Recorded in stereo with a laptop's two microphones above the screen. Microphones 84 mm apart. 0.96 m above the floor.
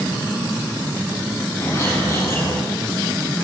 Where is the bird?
30° left (ahead or behind), 8 m.